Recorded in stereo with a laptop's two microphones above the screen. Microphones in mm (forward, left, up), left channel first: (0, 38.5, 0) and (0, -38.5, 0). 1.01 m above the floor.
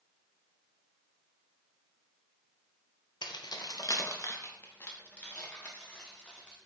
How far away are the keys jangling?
About 0.6 m.